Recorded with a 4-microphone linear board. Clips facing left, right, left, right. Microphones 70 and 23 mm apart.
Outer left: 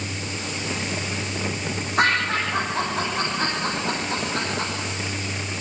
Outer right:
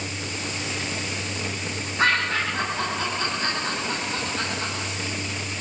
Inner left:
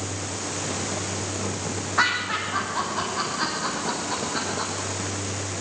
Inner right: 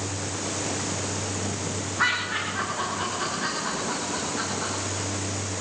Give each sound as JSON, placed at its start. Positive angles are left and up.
{"t": 2.0, "sound": "laughter", "side_deg": 75, "distance_m": 9.5}